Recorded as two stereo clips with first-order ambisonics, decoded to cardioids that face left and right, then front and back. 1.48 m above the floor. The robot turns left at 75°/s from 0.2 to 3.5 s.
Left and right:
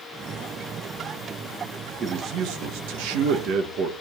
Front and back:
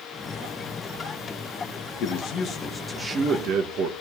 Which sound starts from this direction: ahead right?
A man speaking, at 2.0 s.